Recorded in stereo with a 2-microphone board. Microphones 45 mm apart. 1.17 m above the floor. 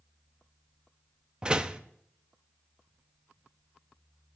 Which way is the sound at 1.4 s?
25° right (ahead or behind).